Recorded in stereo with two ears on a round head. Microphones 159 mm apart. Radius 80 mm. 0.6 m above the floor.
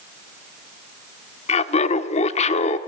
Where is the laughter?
40° left (ahead or behind), 1.2 m.